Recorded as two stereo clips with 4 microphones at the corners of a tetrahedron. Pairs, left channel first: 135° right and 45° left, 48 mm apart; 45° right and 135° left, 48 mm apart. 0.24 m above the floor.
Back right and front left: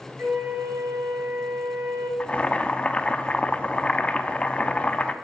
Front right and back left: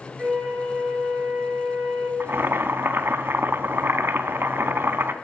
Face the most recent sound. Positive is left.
turn(degrees=160)